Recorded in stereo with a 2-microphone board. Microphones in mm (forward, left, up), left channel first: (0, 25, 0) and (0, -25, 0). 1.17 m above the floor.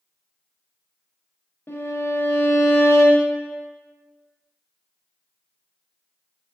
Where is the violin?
55° left (ahead or behind), 0.5 m.